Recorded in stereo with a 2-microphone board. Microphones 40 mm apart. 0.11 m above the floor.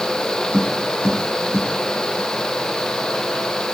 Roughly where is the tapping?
Left.